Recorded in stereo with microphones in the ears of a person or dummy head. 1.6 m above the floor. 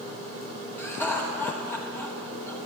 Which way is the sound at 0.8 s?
15° left (ahead or behind).